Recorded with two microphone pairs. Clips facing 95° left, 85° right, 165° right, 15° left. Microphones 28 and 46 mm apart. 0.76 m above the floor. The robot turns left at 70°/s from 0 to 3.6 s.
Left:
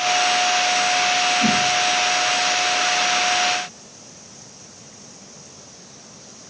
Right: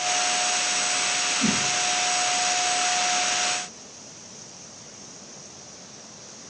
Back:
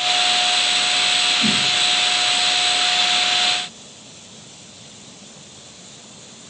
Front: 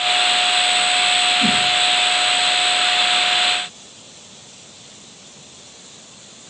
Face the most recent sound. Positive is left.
turn(degrees=-170)